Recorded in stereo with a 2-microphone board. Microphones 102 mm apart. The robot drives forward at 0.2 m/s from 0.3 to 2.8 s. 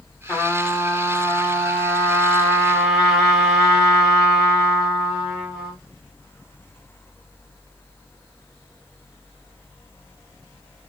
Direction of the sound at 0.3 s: Centre (ahead or behind).